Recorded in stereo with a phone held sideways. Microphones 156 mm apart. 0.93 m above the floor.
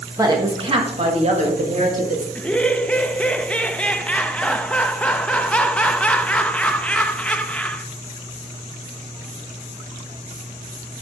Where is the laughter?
10° left (ahead or behind), 0.7 m.